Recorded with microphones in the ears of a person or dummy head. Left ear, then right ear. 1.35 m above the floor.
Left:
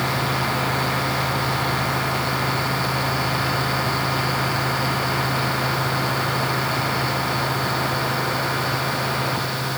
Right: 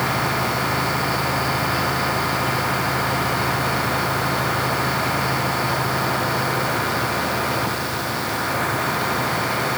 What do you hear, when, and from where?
Only background noise.